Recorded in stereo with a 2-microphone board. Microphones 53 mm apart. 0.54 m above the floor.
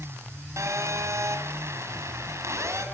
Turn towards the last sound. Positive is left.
turn(degrees=-70)  # may be behind; listen again after turning